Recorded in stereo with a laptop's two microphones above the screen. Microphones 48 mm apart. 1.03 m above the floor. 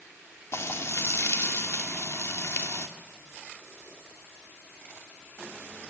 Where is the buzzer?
I don't hear a buzzer.